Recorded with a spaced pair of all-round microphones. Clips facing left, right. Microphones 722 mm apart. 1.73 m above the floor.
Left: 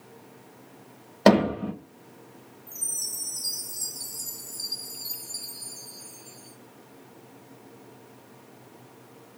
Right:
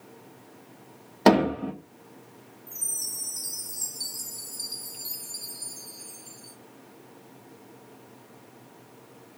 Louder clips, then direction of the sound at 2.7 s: Even; 10° right (ahead or behind).